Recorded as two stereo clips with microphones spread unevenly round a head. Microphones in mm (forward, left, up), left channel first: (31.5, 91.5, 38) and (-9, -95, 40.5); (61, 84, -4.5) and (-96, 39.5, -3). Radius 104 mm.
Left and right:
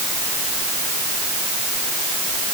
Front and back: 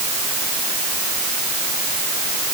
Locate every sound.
Only background noise.